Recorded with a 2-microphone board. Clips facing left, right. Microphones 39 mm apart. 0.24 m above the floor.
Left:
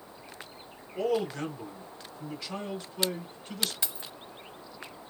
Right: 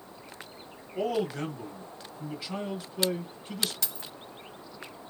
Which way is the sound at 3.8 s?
20° left (ahead or behind).